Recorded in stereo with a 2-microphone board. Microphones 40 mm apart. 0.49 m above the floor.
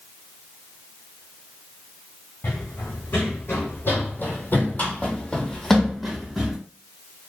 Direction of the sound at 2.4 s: 65° left (ahead or behind).